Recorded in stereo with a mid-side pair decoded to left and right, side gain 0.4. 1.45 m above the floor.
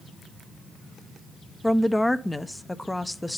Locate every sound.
1.6 s a woman speaking: 10° left, 0.6 m